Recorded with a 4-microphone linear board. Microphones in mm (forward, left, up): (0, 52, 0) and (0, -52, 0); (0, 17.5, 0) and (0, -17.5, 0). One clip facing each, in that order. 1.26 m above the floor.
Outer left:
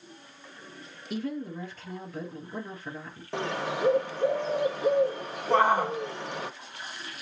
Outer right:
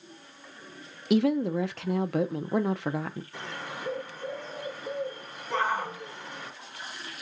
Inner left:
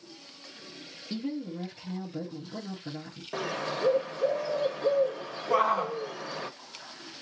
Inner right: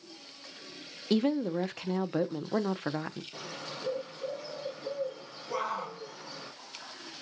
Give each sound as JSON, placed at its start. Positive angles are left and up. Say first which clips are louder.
{"t": 1.1, "sound": "a woman speaking", "louder": "outer right 10 dB, inner right 7 dB", "side_deg": -75, "distance_m": 0.5}
{"t": 3.3, "sound": "a bird", "louder": "outer left 8 dB, inner left 9 dB", "side_deg": 75, "distance_m": 0.9}
{"t": 5.5, "sound": "a shout", "louder": "outer left 6 dB, inner left 9 dB", "side_deg": 55, "distance_m": 1.0}